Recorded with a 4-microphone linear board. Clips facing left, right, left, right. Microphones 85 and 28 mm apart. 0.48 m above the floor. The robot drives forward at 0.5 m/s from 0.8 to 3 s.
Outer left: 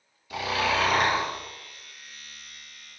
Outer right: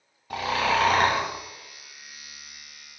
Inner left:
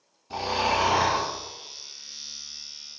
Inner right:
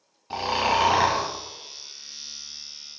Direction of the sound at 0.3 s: 45° right (ahead or behind).